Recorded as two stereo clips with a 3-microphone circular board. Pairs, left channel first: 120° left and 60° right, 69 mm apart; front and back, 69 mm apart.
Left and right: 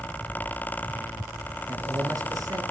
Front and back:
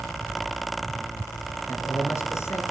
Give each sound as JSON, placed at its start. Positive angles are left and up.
{"t": 1.7, "sound": "a man speaking", "azimuth_deg": -40, "distance_m": 3.0}